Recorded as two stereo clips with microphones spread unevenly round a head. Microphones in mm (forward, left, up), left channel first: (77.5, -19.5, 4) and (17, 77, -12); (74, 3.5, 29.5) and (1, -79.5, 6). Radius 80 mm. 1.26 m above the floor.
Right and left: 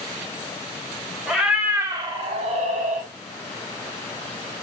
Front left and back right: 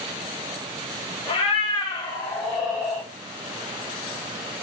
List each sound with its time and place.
1.3 s a cat meowing: 35° left, 0.8 m; by 3.1 s 145° left, 0.8 m